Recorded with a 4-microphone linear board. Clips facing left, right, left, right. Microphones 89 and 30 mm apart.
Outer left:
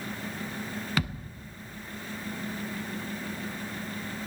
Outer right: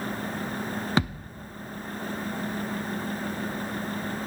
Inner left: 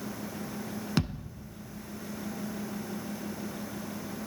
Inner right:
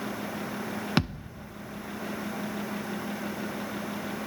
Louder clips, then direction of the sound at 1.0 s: Outer right 5 dB, inner right 3 dB; 30° right (ahead or behind).